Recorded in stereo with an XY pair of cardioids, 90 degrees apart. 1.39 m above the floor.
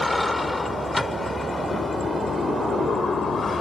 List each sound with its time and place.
0.0 s a vehicle: 5° left; by 3.6 s 35° left